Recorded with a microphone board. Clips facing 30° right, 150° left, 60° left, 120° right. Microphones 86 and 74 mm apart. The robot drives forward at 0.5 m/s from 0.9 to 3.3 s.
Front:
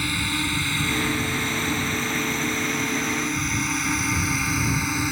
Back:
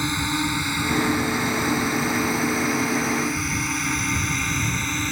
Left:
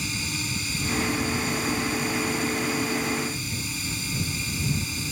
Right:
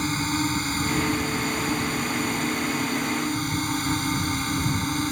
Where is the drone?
145° right; by 5.1 s 110° right.